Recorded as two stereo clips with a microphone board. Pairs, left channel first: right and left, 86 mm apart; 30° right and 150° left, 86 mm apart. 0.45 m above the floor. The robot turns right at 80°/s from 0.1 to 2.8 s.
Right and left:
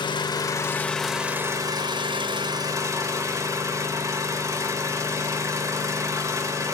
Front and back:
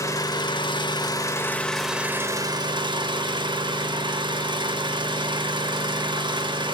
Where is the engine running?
80° right, 0.7 m; by 6.8 s 140° left, 0.7 m.